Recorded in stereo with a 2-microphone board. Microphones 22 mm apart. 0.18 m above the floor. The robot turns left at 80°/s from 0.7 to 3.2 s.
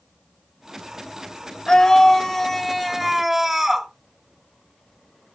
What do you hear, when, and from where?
1.7 s a scream: 30° left (ahead or behind), 1.1 m; by 3.9 s 15° right (ahead or behind), 1.1 m